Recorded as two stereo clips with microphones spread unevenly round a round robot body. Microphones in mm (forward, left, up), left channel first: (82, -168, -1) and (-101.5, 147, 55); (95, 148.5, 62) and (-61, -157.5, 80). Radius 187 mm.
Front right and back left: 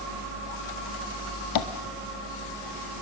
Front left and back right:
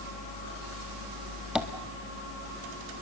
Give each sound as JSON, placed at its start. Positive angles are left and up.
{"t": 1.6, "sound": "tapping", "azimuth_deg": -30, "distance_m": 1.8}